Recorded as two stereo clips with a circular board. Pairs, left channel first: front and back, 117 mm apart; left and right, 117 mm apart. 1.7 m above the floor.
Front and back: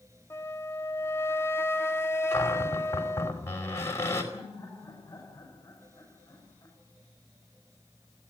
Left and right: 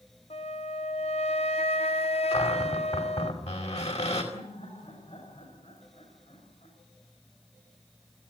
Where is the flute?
65° left, 1.0 m.